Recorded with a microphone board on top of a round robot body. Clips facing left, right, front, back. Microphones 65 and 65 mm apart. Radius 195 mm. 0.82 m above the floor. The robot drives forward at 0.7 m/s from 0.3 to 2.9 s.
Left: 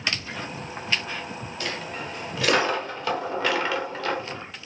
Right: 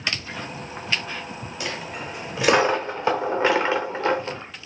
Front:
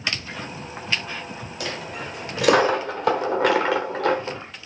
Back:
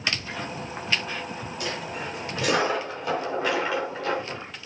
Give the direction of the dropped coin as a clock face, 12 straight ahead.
12 o'clock.